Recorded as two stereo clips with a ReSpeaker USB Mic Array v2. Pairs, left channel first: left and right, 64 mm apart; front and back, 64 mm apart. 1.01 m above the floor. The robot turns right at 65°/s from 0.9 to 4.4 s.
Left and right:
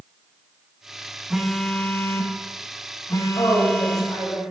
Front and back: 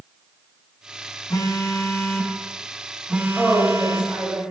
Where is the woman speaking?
80° left, 4.5 m; by 4.4 s 150° left, 4.5 m.